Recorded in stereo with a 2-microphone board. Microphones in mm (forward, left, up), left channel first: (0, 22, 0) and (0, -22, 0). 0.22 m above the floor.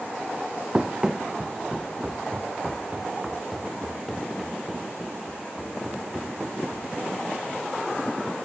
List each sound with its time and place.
0.7 s running footsteps: 20° right (ahead or behind), 0.6 m; by 6.9 s 5° right (ahead or behind), 3.5 m